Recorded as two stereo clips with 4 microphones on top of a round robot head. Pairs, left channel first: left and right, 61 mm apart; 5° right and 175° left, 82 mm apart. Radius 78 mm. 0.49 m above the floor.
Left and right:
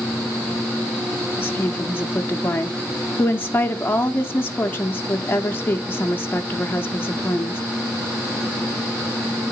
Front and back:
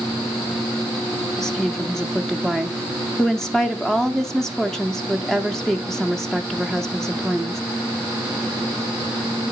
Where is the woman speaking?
80° left, 0.8 m.